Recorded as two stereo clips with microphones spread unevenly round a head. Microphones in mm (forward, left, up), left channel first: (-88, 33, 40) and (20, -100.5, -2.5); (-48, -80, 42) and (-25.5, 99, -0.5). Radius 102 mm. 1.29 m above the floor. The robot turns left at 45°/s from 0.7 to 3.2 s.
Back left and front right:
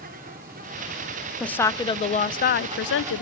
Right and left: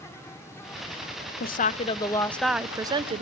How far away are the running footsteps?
No running footsteps in this recording.